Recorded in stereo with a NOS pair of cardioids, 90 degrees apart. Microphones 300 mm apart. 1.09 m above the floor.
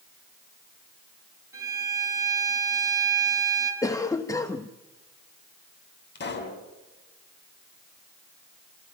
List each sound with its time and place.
1.5 s a violin: 10° right, 7 m
3.8 s a cough: 10° left, 1.2 m
6.2 s a pop: 35° left, 5.5 m